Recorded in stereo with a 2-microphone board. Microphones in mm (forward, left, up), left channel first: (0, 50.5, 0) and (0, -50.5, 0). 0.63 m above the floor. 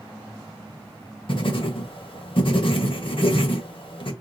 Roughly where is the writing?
Left.